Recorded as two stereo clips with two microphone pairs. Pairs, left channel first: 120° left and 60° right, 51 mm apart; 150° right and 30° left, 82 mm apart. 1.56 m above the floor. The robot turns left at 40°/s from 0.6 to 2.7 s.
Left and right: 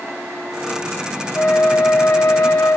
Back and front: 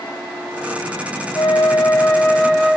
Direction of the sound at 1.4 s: 165° left.